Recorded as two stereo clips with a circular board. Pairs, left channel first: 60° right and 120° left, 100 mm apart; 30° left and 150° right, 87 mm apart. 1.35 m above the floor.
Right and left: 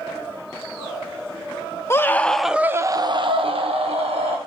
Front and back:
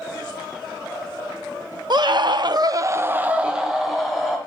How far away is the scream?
About 0.9 m.